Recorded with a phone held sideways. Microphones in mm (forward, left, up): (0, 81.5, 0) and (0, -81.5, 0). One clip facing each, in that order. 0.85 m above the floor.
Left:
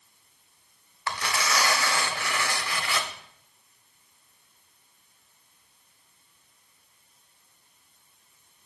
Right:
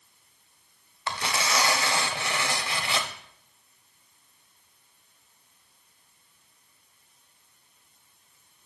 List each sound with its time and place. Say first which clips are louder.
1.1 s tearing paper: even; 25° right (ahead or behind), 0.8 m